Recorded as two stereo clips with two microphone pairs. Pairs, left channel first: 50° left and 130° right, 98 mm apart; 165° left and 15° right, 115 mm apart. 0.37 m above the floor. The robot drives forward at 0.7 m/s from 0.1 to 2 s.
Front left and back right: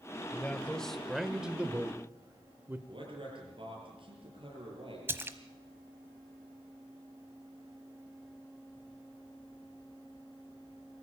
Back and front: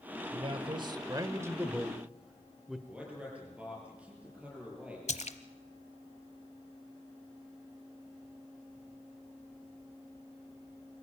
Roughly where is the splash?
Behind.